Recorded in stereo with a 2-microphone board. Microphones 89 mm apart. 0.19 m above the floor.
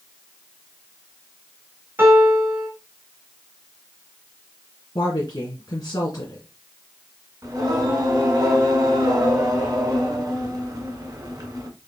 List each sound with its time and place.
2.0 s a piano: 25° right (ahead or behind), 2 m
5.0 s a woman speaking: 45° left (ahead or behind), 2.5 m
7.4 s singing: 45° right (ahead or behind), 1.8 m